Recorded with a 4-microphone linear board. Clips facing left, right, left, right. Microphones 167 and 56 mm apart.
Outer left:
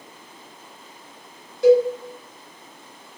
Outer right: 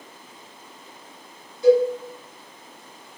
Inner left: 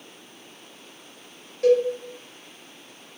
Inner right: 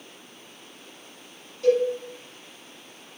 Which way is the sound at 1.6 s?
70° left (ahead or behind).